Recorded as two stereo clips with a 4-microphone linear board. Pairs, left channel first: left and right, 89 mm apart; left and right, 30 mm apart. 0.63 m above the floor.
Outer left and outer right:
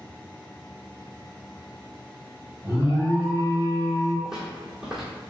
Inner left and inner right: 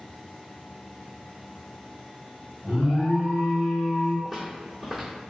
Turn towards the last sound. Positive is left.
turn(degrees=-5)  # may be behind; listen again after turning